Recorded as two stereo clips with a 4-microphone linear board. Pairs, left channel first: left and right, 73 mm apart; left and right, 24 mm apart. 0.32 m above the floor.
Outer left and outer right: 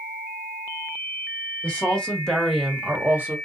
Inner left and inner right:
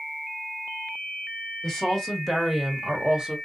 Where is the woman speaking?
20° left (ahead or behind), 1.9 m; by 3.4 s 30° right (ahead or behind), 1.1 m.